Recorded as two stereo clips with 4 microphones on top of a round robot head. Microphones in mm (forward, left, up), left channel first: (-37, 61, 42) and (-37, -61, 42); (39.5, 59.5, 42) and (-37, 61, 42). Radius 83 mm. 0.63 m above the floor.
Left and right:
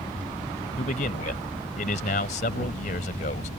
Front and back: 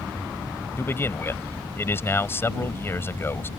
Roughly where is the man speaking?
Ahead left.